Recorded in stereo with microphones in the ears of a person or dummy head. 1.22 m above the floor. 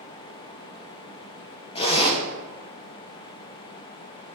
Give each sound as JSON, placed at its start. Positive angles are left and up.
{"t": 1.8, "sound": "a zipper", "side_deg": 35, "distance_m": 0.6}